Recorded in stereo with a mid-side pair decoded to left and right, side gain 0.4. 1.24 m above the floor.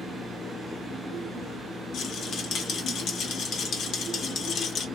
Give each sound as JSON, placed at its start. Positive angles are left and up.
{"t": 1.9, "sound": "a rattle", "azimuth_deg": 70, "distance_m": 1.1}